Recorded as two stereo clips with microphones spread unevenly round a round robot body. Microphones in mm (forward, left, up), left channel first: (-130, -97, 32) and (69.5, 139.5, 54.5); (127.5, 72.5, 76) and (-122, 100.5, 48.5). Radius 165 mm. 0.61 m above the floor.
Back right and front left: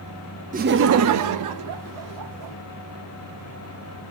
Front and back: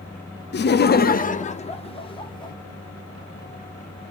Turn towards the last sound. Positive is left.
turn(degrees=70)